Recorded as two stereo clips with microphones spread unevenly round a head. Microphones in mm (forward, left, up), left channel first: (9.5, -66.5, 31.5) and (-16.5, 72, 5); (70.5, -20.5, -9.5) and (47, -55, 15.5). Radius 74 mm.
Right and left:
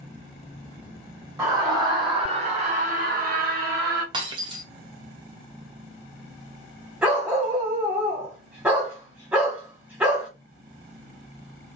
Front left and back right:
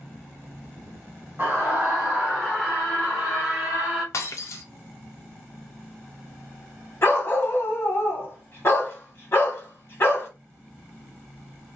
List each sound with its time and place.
1.4 s a scream: 175° left, 1.5 m; by 4.0 s 115° left, 1.6 m
4.1 s breaking glass: 45° left, 0.6 m
7.0 s a dog barking: 5° left, 1.3 m